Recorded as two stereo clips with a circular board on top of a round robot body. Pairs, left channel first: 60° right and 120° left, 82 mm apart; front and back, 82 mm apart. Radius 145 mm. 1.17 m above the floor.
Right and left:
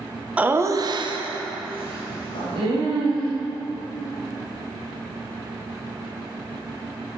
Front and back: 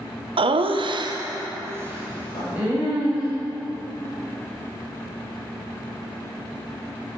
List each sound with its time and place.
0.4 s laughter: 165° right, 0.7 m; by 3.3 s 100° left, 2.5 m
2.3 s writing: 50° right, 1.9 m